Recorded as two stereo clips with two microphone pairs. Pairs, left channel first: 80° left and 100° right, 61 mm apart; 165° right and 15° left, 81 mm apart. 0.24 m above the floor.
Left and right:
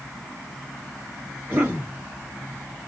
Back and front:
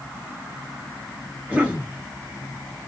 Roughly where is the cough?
Ahead right.